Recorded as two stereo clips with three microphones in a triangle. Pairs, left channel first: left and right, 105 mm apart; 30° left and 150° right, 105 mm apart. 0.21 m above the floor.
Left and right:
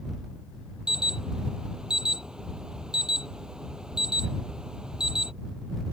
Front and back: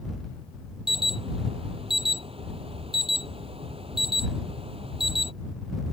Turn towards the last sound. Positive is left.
turn(degrees=-170)